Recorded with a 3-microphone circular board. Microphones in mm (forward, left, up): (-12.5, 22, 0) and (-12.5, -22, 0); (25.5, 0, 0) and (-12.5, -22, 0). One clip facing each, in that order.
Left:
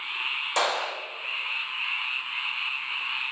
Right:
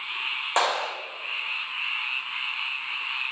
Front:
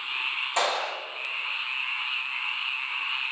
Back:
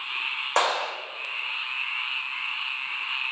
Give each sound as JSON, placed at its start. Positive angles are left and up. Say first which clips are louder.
{"t": 0.6, "sound": "a clap", "louder": "right 2 dB, back 3 dB", "azimuth_deg": -150, "distance_m": 2.0}